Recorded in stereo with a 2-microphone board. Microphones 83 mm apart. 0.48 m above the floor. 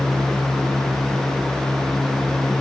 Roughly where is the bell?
I don't hear a bell.